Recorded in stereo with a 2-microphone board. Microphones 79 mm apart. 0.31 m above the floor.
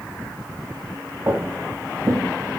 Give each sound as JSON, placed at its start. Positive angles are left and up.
{"t": 1.3, "sound": "footsteps", "side_deg": -30, "distance_m": 0.5}